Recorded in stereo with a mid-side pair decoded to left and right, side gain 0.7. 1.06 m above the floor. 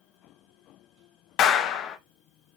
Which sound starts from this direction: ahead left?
A clap, at 1.4 s.